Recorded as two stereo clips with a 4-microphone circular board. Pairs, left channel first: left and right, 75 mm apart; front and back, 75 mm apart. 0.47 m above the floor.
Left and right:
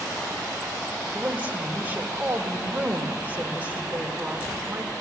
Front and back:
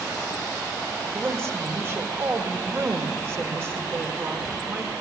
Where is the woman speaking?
145° right, 1.8 m.